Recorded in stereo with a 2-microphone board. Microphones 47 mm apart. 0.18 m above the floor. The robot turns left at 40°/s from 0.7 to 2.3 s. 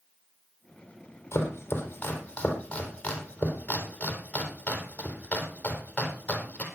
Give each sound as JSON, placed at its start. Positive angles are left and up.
{"t": 1.3, "sound": "chopping", "side_deg": 65, "distance_m": 3.5}